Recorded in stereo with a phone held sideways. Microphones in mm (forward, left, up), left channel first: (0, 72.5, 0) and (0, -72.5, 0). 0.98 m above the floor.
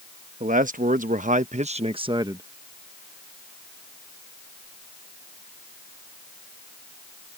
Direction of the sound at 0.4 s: 65° right (ahead or behind).